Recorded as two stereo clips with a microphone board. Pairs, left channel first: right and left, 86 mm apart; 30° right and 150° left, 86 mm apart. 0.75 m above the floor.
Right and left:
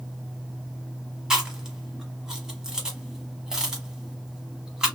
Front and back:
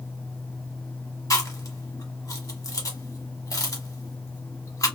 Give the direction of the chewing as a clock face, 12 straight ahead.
12 o'clock.